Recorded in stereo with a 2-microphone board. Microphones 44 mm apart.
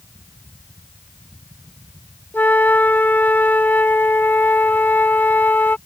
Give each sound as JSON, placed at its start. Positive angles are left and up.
{"t": 2.3, "sound": "a flute", "side_deg": 45}